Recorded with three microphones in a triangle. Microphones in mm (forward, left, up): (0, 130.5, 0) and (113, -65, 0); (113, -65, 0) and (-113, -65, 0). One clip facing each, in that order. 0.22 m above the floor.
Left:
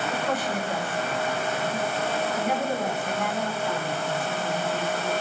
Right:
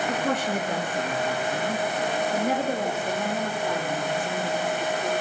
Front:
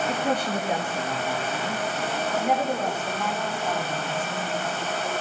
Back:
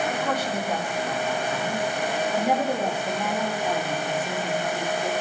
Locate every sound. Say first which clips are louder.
0.1 s a woman speaking: right 2 dB, front 1 dB; 50° right, 4 m; by 5.1 s 120° right, 7 m